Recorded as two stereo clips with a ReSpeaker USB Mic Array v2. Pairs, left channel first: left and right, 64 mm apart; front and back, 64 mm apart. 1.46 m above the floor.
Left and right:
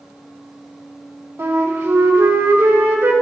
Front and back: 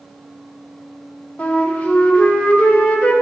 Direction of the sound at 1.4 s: 60° right.